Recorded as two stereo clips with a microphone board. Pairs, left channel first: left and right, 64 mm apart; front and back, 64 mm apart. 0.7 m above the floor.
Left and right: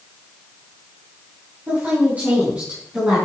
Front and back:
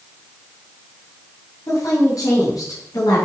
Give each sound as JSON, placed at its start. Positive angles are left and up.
{"t": 1.7, "sound": "a woman speaking", "azimuth_deg": -30, "distance_m": 5.0}